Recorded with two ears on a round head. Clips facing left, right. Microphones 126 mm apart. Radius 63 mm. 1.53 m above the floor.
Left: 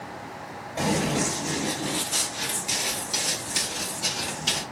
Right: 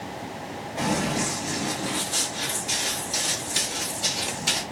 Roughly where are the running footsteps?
Left.